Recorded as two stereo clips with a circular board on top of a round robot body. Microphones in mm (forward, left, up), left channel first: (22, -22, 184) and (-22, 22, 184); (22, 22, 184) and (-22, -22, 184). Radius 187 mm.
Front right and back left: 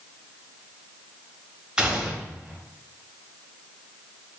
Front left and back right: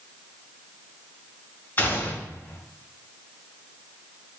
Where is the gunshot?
75° left, 1.1 m.